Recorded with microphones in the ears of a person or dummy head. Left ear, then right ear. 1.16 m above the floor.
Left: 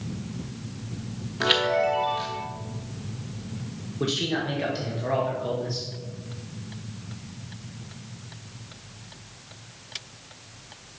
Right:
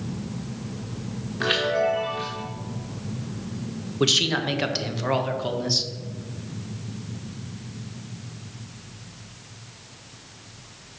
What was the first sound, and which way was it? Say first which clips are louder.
A chime: even; 15° left (ahead or behind).